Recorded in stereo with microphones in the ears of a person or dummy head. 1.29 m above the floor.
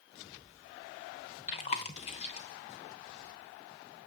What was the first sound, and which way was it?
Chewing, 35° left (ahead or behind).